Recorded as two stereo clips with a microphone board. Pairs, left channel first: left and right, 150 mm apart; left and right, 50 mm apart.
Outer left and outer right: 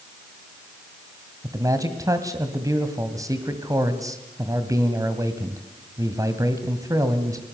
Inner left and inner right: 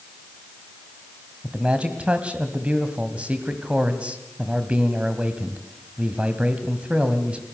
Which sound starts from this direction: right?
A man speaking, at 1.4 s.